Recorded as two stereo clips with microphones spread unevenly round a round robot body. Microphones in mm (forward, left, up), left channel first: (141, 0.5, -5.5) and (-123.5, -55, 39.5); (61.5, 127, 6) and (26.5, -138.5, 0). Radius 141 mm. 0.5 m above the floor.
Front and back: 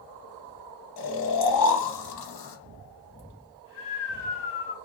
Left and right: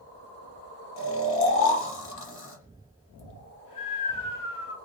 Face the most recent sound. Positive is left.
turn(degrees=40)